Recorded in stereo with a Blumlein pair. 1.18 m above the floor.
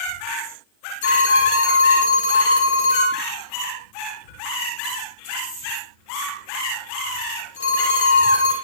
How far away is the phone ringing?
About 1.7 m.